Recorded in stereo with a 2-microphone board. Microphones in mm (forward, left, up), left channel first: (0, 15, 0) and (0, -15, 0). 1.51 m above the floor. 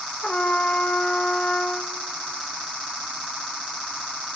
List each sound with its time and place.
0.2 s a trumpet: 45° left (ahead or behind), 1.0 m